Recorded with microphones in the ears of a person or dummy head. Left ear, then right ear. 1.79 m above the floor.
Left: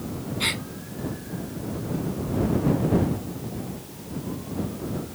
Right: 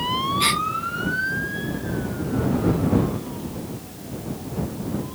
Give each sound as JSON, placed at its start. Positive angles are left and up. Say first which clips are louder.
{"t": 0.4, "sound": "a gasp", "louder": "right 4 dB", "side_deg": -10}